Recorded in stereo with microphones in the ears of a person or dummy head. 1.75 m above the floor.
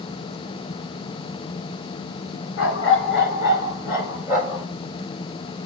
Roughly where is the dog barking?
Left.